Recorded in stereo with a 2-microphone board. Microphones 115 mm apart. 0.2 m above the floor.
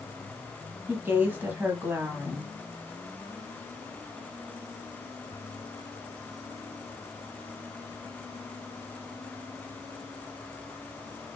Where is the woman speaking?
15° right (ahead or behind), 1.1 m.